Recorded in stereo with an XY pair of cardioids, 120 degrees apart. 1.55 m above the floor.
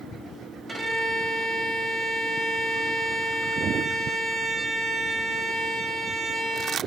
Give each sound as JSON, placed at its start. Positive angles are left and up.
{"t": 0.7, "sound": "a violin", "azimuth_deg": -15, "distance_m": 2.5}